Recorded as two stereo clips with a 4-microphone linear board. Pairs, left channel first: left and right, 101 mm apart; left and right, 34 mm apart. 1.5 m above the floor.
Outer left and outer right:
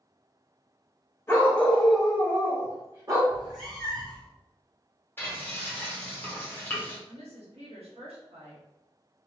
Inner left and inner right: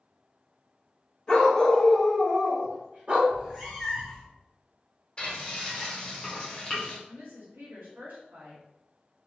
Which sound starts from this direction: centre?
A cat meowing, at 3.3 s.